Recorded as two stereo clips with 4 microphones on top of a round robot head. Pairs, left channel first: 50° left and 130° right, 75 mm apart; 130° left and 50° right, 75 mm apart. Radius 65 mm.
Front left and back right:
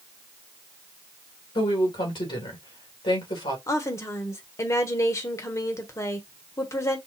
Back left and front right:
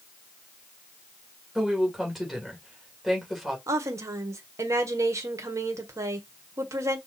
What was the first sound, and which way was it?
A woman speaking, 35° left.